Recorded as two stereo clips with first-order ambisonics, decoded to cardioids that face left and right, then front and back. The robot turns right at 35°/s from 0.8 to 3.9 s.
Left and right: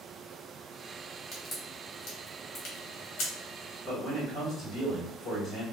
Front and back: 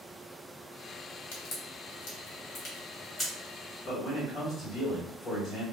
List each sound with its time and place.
1.3 s a crack: 15° left, 1.2 m; by 3.3 s 85° left, 1.2 m
3.9 s a man speaking: 35° left, 1.8 m; by 5.6 s 40° left, 1.8 m